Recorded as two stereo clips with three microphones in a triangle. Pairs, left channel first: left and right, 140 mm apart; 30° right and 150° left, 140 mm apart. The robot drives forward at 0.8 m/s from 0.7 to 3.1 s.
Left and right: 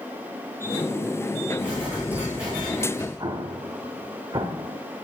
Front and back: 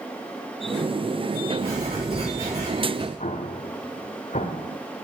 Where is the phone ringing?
No phone ringing in this recording.